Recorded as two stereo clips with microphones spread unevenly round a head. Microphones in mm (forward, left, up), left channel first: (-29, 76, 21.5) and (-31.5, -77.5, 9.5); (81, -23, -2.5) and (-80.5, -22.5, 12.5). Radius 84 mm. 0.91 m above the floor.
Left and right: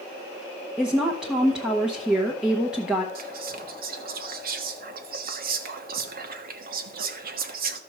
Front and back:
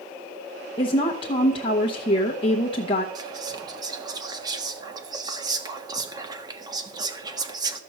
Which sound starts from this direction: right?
Whispering, at 3.1 s.